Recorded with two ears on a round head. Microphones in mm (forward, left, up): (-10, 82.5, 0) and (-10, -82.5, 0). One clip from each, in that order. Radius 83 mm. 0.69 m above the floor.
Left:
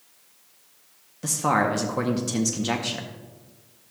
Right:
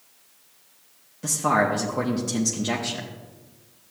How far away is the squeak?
No squeak in this recording.